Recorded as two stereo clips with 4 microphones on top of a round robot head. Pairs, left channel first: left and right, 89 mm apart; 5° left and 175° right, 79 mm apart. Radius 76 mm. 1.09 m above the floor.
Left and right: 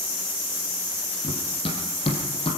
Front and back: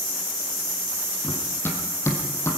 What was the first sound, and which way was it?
Running footsteps, 70° left.